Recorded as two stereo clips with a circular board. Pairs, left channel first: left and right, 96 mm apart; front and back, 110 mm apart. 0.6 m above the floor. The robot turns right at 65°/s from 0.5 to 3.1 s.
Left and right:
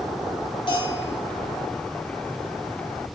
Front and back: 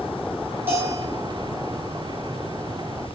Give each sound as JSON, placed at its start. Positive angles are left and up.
{"t": 0.7, "sound": "a bell", "azimuth_deg": 110, "distance_m": 3.0}